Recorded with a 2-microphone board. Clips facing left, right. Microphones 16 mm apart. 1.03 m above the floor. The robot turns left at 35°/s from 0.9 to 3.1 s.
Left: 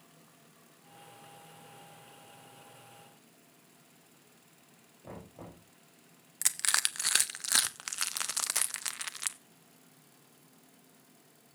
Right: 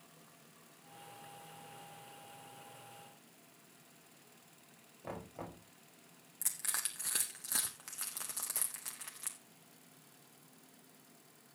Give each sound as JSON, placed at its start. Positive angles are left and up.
{"t": 5.0, "sound": "knocking", "side_deg": -25, "distance_m": 4.5}
{"t": 6.4, "sound": "crushing", "side_deg": 65, "distance_m": 0.6}